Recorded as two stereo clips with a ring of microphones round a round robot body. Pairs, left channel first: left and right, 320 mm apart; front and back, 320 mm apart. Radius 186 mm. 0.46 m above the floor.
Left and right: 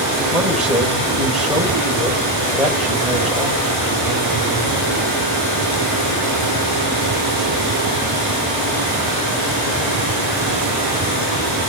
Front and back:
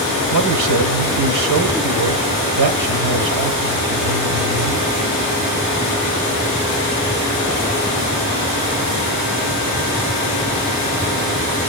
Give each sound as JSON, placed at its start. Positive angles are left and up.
{"t": 0.3, "sound": "a man speaking", "azimuth_deg": -175, "distance_m": 2.0}